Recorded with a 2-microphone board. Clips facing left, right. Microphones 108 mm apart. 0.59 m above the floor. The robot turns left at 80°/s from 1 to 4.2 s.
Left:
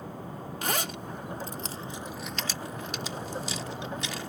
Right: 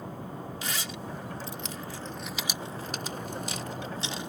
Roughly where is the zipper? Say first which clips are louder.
Left 8 dB; left.